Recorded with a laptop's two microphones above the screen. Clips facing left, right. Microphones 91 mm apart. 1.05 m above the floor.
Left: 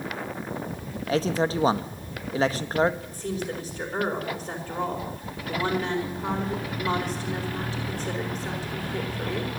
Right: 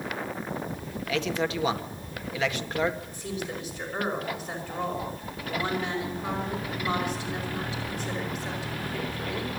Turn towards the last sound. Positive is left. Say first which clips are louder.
# left 3 dB
turn(degrees=35)  # may be behind; listen again after turning